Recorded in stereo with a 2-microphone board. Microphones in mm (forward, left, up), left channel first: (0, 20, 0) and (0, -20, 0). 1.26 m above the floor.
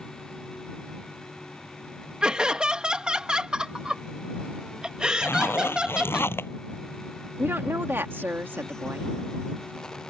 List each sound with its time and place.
2.2 s laughter: 20° right (ahead or behind)
5.2 s a zipper: 75° left (ahead or behind)
7.4 s a woman speaking: 65° right (ahead or behind)